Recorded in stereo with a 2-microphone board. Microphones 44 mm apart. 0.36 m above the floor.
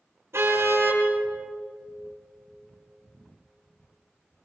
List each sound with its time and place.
0.3 s a car horn: 70° right (ahead or behind), 6 m